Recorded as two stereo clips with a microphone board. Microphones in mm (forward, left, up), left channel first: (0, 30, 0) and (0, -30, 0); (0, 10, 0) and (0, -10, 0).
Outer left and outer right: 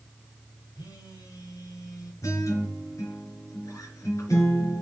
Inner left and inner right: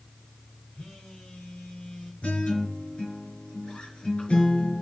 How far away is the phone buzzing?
About 5.5 m.